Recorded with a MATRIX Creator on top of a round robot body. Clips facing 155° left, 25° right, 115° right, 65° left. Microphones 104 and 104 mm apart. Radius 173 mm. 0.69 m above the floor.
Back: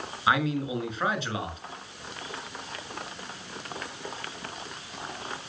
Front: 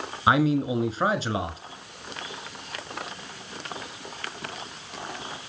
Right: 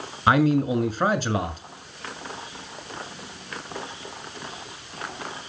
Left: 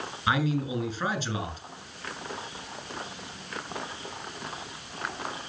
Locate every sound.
0.3 s a man speaking: 80° right, 2.5 m